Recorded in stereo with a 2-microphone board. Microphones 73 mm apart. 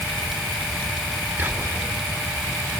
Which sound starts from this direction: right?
Whispering, at 1.4 s.